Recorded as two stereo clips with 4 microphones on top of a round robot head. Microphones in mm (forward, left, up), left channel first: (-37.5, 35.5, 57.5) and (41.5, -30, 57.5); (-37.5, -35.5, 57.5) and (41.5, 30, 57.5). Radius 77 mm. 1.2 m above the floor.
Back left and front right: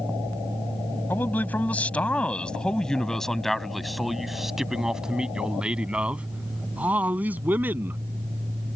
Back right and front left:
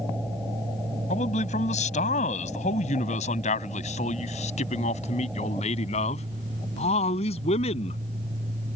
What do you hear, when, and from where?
1.1 s a man speaking: 145° right; by 8.0 s 110° right